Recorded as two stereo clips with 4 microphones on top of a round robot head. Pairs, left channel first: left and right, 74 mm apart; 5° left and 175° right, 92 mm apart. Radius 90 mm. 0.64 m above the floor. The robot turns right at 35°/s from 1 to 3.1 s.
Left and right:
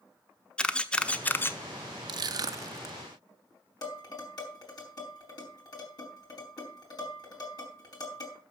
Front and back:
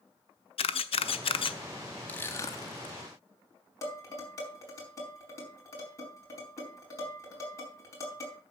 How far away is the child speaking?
No child speaking in this recording.